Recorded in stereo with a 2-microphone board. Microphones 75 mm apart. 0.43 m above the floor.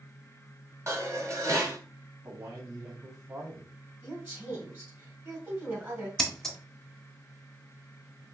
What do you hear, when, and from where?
0.9 s dishes clattering: 40° right (ahead or behind), 1.4 m
2.2 s a man speaking: 50° right (ahead or behind), 2.5 m
4.0 s a woman speaking: 30° right (ahead or behind), 2.5 m
6.2 s scissors: 5° left (ahead or behind), 0.7 m